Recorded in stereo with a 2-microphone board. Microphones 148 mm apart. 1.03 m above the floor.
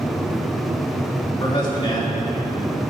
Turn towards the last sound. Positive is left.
turn(degrees=30)  # may be behind; listen again after turning